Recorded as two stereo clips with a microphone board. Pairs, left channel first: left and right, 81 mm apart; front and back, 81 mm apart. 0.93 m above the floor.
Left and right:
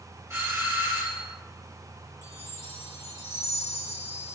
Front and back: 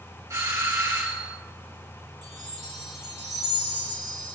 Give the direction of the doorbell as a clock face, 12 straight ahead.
5 o'clock.